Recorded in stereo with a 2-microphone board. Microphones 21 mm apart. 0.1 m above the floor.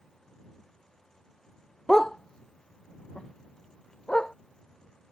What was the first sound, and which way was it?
A dog barking, 30° left (ahead or behind).